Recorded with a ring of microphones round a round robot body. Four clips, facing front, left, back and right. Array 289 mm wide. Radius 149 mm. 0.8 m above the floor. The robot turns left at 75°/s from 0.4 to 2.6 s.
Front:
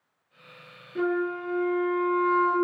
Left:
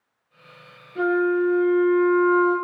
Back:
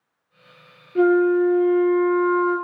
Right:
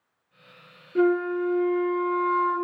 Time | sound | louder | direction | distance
0.9 | a flute | left 2 dB, back 11 dB | 120° right | 2 m